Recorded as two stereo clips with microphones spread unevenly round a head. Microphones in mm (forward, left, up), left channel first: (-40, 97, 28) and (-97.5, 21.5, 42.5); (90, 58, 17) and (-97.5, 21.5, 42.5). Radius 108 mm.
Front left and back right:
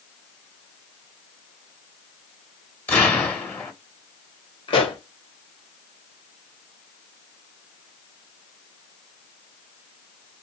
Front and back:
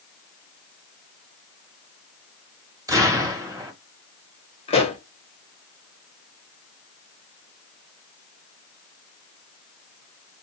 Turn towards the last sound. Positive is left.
turn(degrees=70)